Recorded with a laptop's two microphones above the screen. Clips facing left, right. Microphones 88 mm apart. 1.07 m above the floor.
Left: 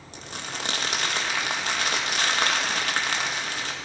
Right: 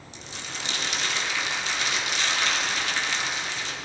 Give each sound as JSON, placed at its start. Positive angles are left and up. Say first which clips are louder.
{"t": 0.1, "sound": "crumpling", "louder": "left 3 dB", "side_deg": 55, "distance_m": 1.5}